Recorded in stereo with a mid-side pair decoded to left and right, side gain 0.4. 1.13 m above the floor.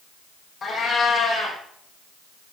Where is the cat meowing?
50° left, 5 m.